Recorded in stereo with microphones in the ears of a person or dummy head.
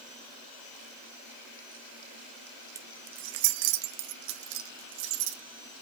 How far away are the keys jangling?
About 0.8 m.